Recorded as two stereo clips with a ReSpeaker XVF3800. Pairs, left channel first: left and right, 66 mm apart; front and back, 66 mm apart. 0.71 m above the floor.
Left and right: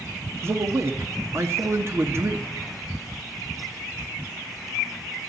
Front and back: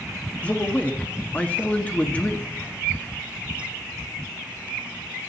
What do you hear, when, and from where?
0.4 s a man speaking: 60° right, 1.2 m